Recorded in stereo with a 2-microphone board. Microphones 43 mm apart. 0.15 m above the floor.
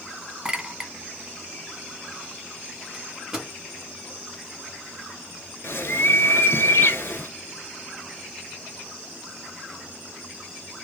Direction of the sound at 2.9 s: 10° right (ahead or behind).